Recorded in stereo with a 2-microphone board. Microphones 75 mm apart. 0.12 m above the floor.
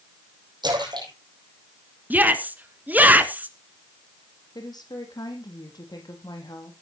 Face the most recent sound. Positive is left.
turn(degrees=60)  # may be behind; listen again after turning